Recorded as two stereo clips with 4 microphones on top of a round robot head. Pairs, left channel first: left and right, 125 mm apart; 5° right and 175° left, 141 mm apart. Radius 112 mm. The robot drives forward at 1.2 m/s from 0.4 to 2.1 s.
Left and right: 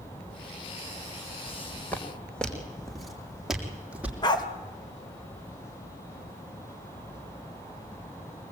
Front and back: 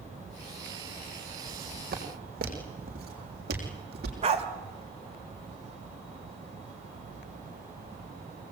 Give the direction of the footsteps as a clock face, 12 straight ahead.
7 o'clock.